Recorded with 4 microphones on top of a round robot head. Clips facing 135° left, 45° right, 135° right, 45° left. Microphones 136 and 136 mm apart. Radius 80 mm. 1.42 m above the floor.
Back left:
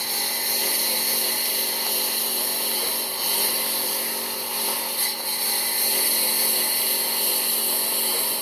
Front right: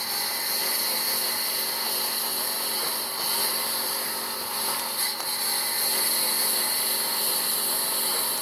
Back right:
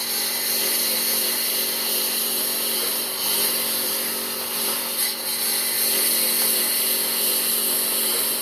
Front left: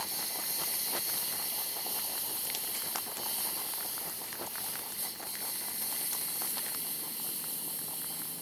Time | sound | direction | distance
0.0 | a lawn mower | 155° right | ?